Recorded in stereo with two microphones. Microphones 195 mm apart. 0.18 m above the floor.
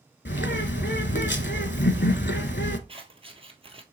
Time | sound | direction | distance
0.2 | a bird | 65° left (ahead or behind) | 0.6 m
2.9 | scissors | 30° right (ahead or behind) | 0.8 m